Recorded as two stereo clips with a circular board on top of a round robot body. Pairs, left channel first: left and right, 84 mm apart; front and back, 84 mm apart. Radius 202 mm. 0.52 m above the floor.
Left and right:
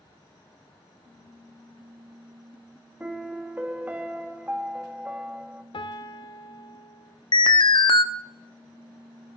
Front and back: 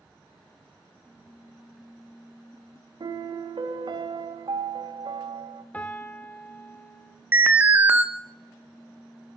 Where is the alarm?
110° left, 0.7 m.